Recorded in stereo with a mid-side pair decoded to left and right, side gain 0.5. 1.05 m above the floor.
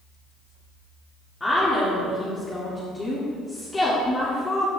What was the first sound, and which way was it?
A woman speaking, 15° left.